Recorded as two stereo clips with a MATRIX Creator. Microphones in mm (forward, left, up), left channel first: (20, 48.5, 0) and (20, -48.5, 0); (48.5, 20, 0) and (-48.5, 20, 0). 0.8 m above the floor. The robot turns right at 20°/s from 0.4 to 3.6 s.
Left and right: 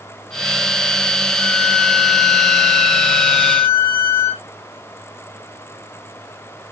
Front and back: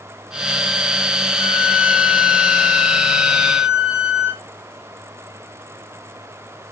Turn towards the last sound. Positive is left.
turn(degrees=130)